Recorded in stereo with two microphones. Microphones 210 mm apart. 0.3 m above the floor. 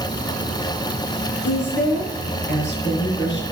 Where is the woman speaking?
60° left (ahead or behind), 3.5 m.